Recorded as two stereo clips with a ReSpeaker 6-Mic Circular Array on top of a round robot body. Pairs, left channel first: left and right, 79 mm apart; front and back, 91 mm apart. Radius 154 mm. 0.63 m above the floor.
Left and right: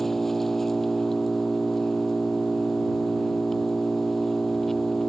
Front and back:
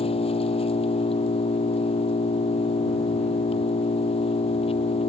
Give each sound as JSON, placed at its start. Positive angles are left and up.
{"t": 0.0, "sound": "an engine running", "azimuth_deg": 5}